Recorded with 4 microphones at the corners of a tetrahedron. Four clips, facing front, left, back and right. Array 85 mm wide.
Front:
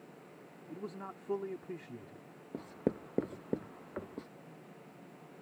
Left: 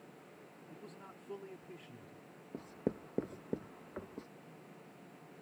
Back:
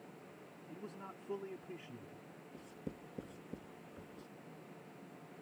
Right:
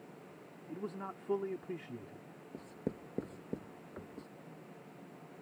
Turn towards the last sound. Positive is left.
turn(degrees=10)